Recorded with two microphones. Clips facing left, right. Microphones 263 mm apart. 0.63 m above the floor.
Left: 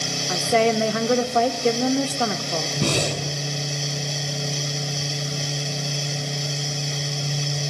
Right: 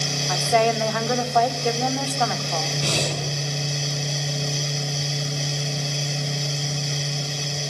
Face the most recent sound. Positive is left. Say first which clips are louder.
# left 5 dB
turn(degrees=60)  # may be behind; listen again after turning